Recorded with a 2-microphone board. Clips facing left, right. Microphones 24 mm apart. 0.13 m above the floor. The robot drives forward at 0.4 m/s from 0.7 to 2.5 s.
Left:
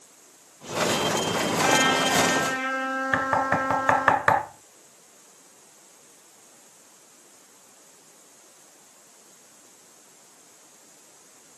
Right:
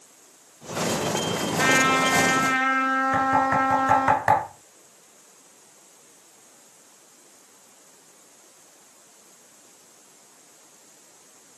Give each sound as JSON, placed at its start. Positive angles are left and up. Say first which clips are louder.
{"t": 1.6, "sound": "a trumpet", "louder": "right 2 dB", "side_deg": -50, "distance_m": 1.5}
{"t": 3.1, "sound": "knocking", "louder": "even", "side_deg": 40, "distance_m": 1.5}